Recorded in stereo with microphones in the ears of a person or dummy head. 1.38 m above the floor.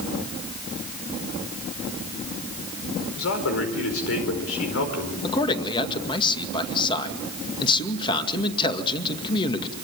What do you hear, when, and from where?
3.2 s a man speaking: 85° left, 4.5 m
5.2 s a man speaking: 25° left (ahead or behind), 2 m